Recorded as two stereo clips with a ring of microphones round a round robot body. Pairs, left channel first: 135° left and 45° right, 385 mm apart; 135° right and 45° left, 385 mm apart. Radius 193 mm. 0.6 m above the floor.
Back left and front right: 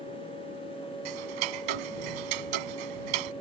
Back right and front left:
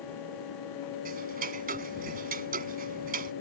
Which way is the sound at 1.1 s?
25° right.